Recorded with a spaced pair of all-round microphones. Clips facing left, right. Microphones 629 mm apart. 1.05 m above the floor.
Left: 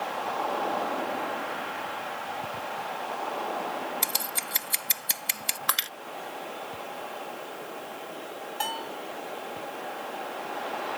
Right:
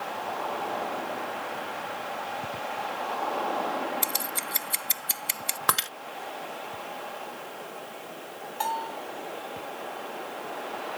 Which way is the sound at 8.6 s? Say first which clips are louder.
Right 3 dB; 55° left (ahead or behind).